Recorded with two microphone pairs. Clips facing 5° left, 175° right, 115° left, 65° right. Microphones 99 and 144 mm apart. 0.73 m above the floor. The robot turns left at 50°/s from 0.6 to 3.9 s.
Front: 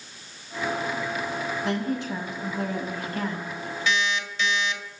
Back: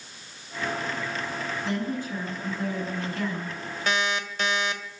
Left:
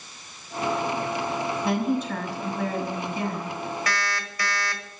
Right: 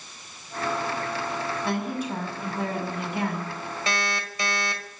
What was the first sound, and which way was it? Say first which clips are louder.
A woman speaking: front 2 dB, left 5 dB; 35° left.